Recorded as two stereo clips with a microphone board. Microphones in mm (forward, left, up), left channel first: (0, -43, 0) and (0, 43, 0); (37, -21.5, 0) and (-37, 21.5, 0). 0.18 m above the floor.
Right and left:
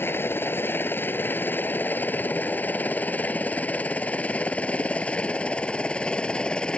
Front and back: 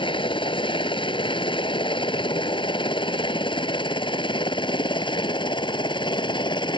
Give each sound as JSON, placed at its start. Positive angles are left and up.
{"t": 0.0, "sound": "a helicopter", "azimuth_deg": -25}